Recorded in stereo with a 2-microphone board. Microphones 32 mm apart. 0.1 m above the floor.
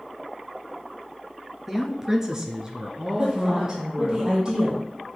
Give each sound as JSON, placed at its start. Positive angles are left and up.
{"t": 1.7, "sound": "a woman speaking", "side_deg": -10, "distance_m": 1.3}
{"t": 3.2, "sound": "a woman speaking", "side_deg": -20, "distance_m": 3.5}